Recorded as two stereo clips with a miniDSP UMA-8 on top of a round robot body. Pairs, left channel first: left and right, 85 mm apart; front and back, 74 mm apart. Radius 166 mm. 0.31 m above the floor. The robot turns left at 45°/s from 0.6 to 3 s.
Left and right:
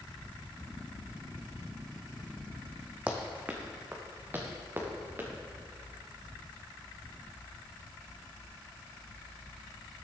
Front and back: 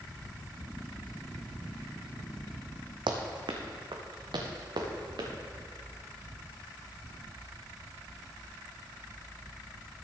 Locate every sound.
3.1 s running footsteps: 165° right, 1.1 m; by 5.3 s 155° right, 2.5 m